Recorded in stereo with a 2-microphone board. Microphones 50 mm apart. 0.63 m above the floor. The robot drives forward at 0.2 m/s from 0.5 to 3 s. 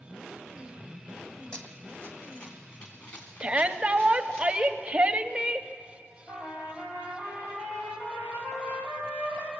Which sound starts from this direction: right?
A shout, at 3.4 s.